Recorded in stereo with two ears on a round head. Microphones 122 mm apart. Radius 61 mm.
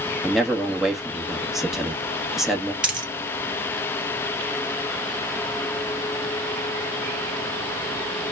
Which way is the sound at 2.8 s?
5° right (ahead or behind).